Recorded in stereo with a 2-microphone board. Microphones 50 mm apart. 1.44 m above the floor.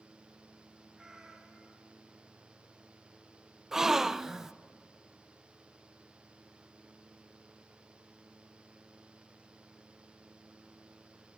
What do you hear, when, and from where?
0.9 s a cat meowing: 15° right (ahead or behind), 2.5 m
3.7 s a gasp: 10° right (ahead or behind), 0.5 m